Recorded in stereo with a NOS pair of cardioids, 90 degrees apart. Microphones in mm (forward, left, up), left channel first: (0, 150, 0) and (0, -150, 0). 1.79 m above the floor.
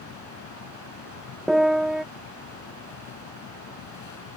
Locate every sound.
0.0 s a fan: 70° left
1.5 s a piano: straight ahead